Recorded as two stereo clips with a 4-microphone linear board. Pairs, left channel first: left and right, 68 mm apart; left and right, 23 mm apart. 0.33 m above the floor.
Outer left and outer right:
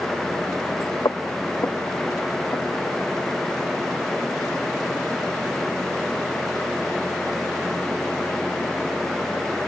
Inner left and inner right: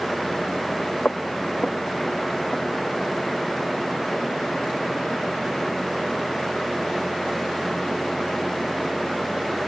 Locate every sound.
1.1 s footsteps: 75° left (ahead or behind), 0.9 m; by 3.0 s 45° left (ahead or behind), 3.5 m